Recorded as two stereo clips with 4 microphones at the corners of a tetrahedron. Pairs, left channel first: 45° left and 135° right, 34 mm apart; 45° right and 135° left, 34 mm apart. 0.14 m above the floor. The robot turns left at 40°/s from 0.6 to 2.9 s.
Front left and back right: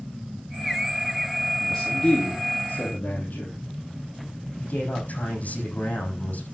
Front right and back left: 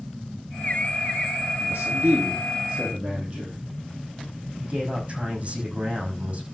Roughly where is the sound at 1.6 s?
Behind left.